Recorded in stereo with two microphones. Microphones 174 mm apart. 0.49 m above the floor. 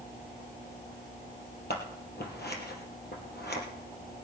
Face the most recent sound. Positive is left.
turn(degrees=70)  # may be behind; listen again after turning